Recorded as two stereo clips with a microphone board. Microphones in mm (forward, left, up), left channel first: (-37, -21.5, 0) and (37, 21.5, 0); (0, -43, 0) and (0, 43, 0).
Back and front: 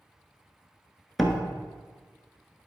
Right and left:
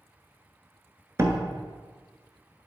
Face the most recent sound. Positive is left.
turn(degrees=120)